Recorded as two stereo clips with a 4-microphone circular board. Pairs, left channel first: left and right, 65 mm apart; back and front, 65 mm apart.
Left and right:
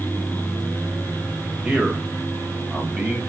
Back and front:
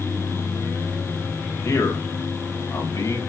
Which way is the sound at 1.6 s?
160° right.